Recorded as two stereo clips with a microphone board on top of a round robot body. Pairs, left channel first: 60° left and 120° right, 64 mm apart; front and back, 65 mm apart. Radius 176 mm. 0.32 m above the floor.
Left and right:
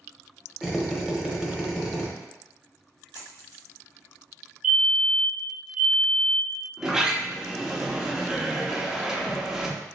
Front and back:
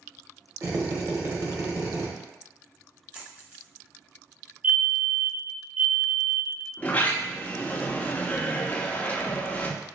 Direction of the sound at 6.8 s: 45° right.